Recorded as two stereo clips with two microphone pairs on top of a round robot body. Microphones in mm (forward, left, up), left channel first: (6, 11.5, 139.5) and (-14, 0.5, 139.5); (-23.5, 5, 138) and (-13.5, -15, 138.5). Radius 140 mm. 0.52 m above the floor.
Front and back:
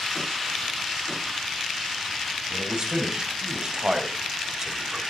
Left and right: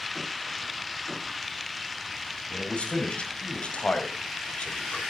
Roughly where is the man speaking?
Behind left.